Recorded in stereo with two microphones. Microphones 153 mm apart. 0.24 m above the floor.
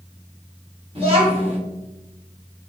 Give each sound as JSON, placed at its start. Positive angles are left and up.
{"t": 0.9, "sound": "a child speaking", "side_deg": -35, "distance_m": 1.1}